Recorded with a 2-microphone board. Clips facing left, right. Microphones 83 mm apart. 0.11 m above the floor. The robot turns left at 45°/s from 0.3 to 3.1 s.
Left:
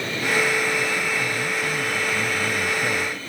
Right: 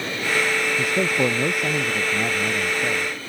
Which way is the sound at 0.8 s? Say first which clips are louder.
Right 3 dB; 80° right.